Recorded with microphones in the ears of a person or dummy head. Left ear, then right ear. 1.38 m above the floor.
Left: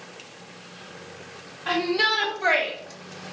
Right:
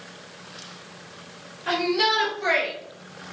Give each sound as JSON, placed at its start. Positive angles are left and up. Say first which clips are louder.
{"t": 1.7, "sound": "a shout", "louder": "even", "side_deg": 30, "distance_m": 3.0}